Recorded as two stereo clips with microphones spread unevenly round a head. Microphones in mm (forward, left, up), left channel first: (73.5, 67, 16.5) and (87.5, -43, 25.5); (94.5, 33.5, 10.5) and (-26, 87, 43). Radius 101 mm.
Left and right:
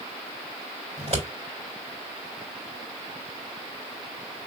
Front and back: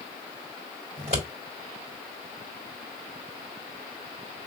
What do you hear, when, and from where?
1.0 s scissors: 145° right, 2.5 m